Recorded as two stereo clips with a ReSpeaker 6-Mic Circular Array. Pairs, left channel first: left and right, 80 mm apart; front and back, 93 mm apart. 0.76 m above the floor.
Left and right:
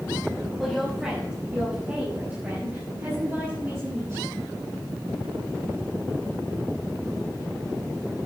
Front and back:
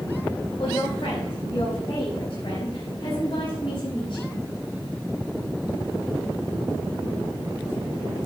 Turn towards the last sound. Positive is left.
turn(degrees=-40)